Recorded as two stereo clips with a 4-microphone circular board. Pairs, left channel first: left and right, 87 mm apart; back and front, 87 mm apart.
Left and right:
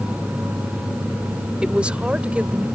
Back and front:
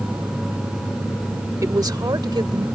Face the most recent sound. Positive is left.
turn(degrees=-15)